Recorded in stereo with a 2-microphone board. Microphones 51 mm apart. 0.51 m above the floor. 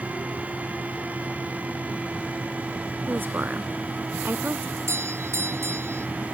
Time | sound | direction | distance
3.1 | a woman speaking | 40° right (ahead or behind) | ?
4.8 | a doorbell | 60° right (ahead or behind) | ?